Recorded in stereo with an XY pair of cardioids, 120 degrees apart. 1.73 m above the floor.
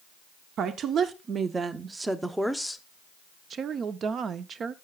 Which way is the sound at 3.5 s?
45° right.